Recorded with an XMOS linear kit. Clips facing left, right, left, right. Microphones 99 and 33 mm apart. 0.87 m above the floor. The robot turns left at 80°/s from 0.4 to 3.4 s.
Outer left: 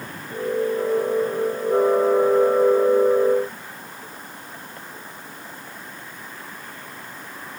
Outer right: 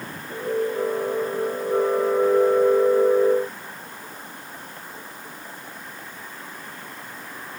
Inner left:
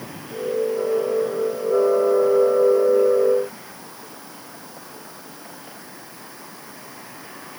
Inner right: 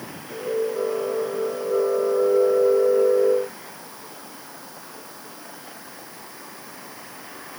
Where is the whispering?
I don't hear whispering.